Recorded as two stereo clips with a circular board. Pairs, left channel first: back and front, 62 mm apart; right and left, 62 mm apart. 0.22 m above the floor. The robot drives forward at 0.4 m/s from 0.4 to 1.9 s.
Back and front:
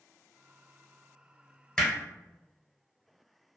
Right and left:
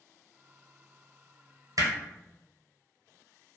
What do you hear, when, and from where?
1.8 s hammering: 100° left, 0.8 m; by 1.9 s 105° left, 0.8 m